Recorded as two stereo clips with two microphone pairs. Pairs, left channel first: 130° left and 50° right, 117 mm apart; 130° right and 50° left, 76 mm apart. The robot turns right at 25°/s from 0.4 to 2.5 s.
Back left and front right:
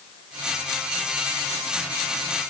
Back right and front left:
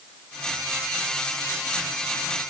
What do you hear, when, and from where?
Only background noise.